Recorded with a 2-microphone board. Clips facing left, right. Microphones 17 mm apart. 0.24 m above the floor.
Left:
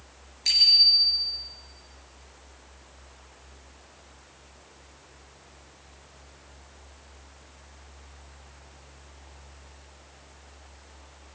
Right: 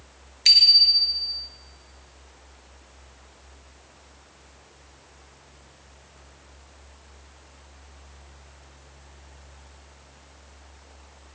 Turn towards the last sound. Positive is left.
turn(degrees=-35)  # may be behind; listen again after turning